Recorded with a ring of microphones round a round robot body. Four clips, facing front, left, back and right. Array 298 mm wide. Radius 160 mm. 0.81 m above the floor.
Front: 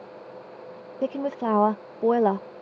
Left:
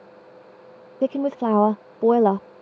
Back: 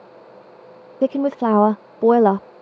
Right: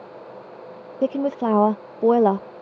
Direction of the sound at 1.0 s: Straight behind.